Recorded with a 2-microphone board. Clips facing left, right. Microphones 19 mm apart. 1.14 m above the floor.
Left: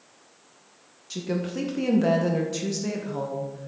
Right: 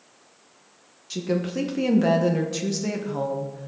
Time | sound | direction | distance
1.1 | a woman speaking | 10° right (ahead or behind) | 0.9 m